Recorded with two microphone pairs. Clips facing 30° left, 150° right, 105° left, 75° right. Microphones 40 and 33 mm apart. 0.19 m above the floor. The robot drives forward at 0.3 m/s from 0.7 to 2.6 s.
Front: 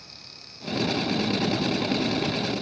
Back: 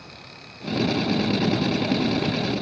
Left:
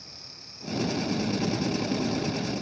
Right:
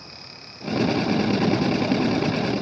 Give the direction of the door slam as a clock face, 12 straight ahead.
No door slam in this recording.